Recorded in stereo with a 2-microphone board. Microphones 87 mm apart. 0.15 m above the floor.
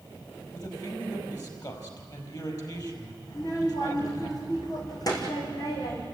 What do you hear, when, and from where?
0.5 s a man speaking: 45° left (ahead or behind), 5 m
3.3 s a child speaking: 45° left (ahead or behind), 4.5 m